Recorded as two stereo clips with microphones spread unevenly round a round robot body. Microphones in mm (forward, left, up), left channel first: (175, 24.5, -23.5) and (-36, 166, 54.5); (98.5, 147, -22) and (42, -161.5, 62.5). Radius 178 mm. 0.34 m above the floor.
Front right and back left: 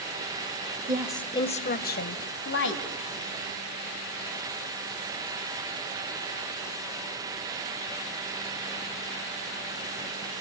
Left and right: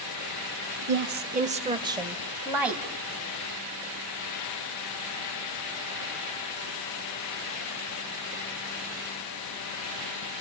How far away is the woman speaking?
About 0.9 m.